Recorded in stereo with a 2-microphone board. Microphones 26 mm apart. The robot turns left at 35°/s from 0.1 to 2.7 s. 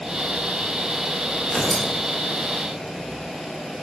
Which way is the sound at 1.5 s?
15° right (ahead or behind).